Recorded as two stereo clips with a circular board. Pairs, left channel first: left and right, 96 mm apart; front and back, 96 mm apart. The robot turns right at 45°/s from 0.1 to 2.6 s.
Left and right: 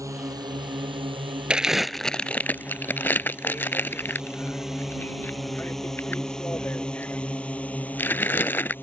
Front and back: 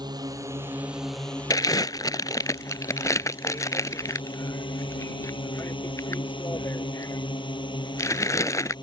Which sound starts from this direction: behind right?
A drone, at 0.0 s.